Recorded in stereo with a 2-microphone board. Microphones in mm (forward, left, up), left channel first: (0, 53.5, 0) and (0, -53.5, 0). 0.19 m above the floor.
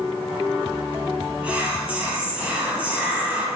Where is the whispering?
15° right (ahead or behind), 1.0 m.